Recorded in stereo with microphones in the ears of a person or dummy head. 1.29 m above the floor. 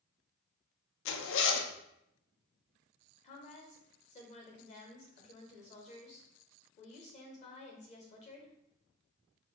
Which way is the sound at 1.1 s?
65° left (ahead or behind).